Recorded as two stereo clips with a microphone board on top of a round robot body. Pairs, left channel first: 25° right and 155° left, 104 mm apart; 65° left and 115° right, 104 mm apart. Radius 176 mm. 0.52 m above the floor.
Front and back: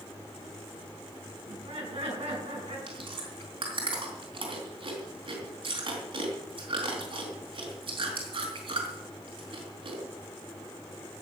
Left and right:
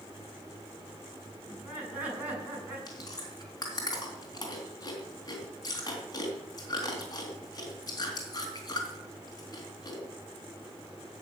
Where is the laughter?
175° left, 6 m.